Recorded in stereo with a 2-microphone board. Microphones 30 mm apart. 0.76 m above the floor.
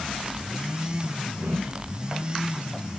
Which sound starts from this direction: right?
A whoosh, at 1.4 s.